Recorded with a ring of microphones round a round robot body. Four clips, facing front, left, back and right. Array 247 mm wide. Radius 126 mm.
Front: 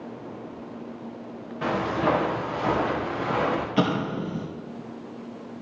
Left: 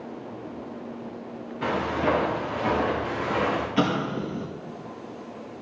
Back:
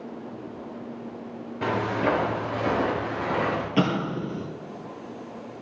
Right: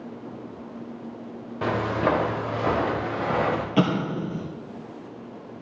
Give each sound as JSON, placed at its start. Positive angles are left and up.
{"t": 1.6, "sound": "footsteps", "azimuth_deg": -115, "distance_m": 5.5}
{"t": 3.8, "sound": "an explosion", "azimuth_deg": -130, "distance_m": 3.0}